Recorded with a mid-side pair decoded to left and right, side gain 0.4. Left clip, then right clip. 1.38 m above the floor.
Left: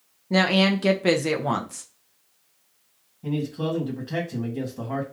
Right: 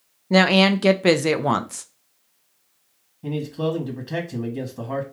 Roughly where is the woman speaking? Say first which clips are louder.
Right 4 dB; ahead right.